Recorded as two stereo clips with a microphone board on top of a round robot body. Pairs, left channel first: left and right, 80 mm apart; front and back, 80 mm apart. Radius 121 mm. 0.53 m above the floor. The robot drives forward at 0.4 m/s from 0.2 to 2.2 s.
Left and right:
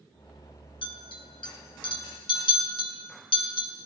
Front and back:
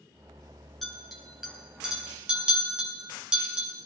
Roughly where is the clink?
Left.